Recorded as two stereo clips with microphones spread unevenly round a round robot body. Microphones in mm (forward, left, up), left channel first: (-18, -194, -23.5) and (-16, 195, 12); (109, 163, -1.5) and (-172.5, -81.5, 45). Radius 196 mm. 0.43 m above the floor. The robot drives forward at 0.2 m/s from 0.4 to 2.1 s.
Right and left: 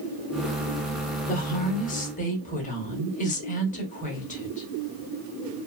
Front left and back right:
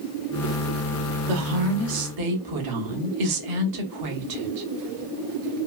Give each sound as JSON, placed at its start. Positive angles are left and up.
{"t": 1.3, "sound": "a woman speaking", "azimuth_deg": -140, "distance_m": 0.9}